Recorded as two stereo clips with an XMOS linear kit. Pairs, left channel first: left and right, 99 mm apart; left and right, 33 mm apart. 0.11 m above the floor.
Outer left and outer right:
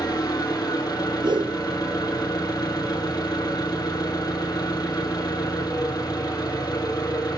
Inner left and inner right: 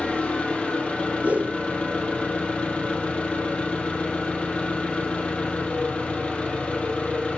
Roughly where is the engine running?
Left.